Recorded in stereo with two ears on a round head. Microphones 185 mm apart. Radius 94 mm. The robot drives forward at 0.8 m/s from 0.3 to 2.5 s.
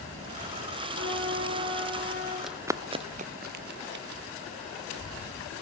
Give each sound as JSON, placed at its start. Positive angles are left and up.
{"t": 0.9, "sound": "a trumpet", "side_deg": -55, "distance_m": 7.5}
{"t": 2.4, "sound": "running footsteps", "side_deg": 0, "distance_m": 0.6}